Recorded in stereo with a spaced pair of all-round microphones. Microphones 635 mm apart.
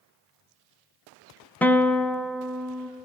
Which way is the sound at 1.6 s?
5° left (ahead or behind).